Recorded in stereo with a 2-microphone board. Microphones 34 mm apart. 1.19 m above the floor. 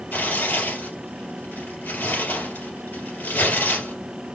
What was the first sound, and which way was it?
Tearing paper, 70° left (ahead or behind).